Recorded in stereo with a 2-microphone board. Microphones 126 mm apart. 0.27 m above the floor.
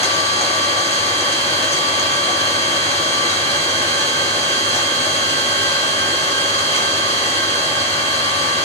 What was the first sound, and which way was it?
An engine running, 60° left (ahead or behind).